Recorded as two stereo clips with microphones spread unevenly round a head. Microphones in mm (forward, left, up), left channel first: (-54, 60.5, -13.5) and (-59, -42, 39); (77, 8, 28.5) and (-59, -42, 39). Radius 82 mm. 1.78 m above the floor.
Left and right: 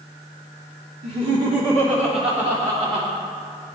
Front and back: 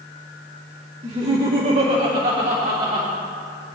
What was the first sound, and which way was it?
Laughter, 110° right.